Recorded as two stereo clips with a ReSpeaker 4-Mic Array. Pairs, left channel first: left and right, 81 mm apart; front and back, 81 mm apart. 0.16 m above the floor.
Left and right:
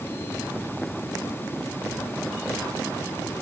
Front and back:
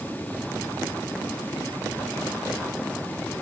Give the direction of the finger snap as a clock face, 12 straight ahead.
No finger snap in this recording.